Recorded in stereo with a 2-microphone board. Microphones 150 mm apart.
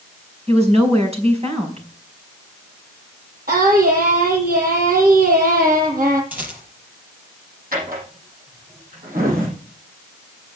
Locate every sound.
0.5 s a woman speaking: 45° right (ahead or behind), 4.5 m
3.5 s singing: 75° right (ahead or behind), 8.5 m
6.3 s a rattle: 10° right (ahead or behind), 4.5 m
7.7 s a drawer: 70° right (ahead or behind), 6.5 m